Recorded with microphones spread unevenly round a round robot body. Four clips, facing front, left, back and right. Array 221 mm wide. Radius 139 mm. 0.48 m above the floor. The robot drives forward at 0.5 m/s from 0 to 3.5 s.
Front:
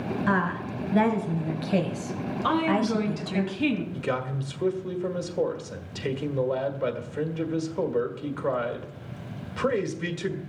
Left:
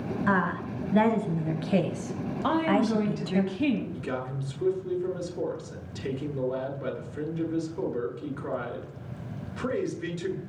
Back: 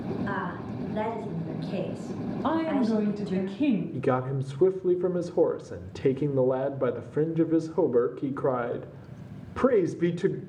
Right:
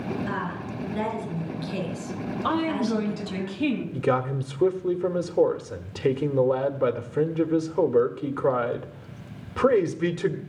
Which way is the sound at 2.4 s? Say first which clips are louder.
Left 1 dB, front 1 dB; 155° left.